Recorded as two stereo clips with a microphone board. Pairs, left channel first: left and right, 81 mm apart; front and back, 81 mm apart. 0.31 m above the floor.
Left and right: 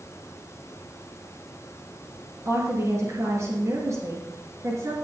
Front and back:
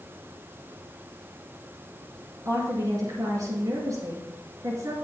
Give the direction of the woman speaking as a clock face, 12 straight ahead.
5 o'clock.